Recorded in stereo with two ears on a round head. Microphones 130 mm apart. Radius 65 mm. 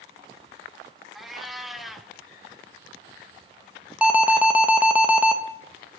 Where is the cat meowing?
Centre (ahead or behind), 1.0 m.